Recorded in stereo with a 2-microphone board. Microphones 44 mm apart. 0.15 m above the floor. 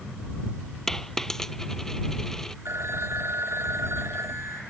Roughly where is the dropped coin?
Centre.